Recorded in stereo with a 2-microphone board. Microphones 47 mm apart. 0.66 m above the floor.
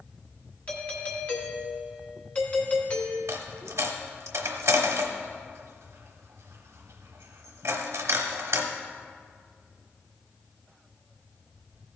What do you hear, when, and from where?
0.7 s a doorbell: 30° left (ahead or behind), 1.3 m
3.3 s a dropped coin: 85° right, 1.1 m